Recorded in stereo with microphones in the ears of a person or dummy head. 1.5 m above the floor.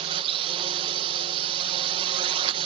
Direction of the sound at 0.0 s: 30° right (ahead or behind).